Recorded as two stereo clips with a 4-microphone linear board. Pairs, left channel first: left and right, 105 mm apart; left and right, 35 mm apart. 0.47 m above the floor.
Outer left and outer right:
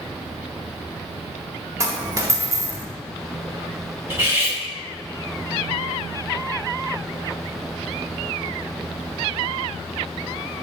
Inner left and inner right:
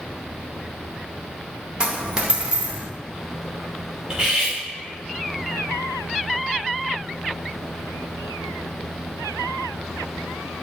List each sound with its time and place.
1.8 s a dropped coin: 25° right (ahead or behind), 0.5 m
4.1 s cutlery clinking: 20° right (ahead or behind), 0.8 m